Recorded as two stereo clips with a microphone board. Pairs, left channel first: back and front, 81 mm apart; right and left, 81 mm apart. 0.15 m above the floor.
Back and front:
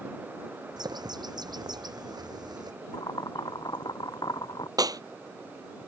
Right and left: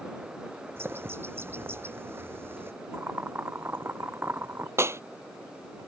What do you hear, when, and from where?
0.8 s a bird: 30° left
2.9 s boiling: 150° left
4.8 s a clap: 35° left